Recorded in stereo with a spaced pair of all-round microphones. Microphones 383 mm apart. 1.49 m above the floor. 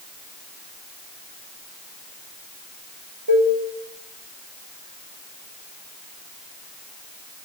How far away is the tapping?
No tapping in this recording.